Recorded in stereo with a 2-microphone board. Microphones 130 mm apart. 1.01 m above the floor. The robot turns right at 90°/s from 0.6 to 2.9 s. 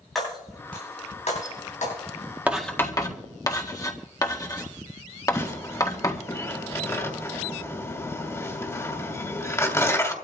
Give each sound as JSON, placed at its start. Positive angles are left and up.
{"t": 0.1, "sound": "breaking glass", "side_deg": 0, "distance_m": 9.0}
{"t": 2.5, "sound": "writing", "side_deg": -10, "distance_m": 1.7}
{"t": 5.3, "sound": "tearing paper", "side_deg": 20, "distance_m": 2.5}